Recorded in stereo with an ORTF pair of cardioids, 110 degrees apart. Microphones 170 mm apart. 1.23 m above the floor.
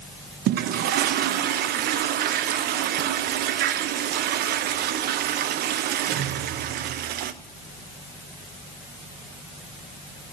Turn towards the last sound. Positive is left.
turn(degrees=-70)